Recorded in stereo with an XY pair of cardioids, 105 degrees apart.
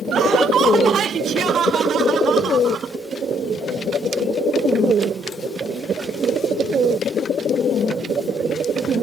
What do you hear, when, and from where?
0.1 s laughter: 65° right; by 3.0 s 60° right